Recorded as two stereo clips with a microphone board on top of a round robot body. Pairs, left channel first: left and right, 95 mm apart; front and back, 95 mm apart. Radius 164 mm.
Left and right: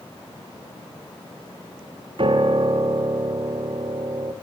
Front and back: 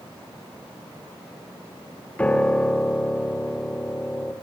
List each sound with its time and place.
2.2 s a piano: 75° right, 2 m